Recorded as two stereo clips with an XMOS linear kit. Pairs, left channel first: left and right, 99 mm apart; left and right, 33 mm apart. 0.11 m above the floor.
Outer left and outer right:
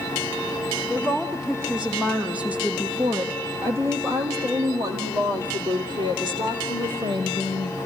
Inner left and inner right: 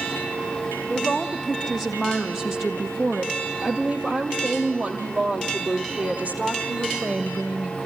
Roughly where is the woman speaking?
Centre.